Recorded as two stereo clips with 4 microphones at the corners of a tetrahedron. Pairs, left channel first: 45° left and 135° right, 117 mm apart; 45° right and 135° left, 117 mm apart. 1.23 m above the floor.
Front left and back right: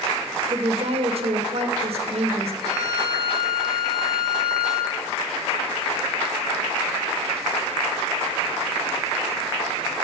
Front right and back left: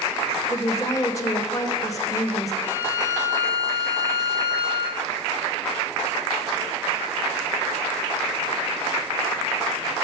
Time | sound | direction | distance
0.5 | a woman speaking | 105° right | 0.6 m
2.6 | a violin | 125° left | 3 m